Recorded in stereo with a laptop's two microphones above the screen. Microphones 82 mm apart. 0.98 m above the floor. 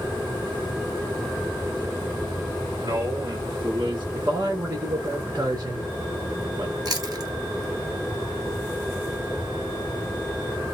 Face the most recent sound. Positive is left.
turn(degrees=-50)  # may be behind; listen again after turning